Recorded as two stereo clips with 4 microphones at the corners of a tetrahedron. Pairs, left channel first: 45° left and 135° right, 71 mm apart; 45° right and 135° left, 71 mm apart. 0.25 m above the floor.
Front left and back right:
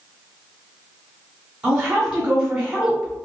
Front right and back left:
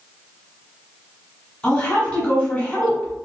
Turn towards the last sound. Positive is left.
turn(degrees=-85)